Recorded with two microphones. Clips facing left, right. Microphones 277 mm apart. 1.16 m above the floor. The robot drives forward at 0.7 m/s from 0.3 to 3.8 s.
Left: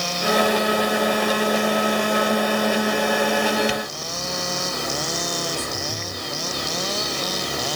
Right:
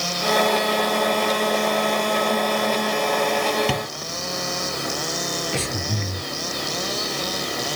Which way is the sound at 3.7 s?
65° right (ahead or behind).